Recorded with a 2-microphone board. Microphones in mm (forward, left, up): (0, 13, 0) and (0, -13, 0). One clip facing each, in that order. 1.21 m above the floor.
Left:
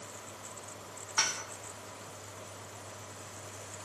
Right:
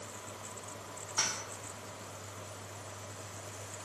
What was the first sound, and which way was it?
Dishes clattering, 25° left (ahead or behind).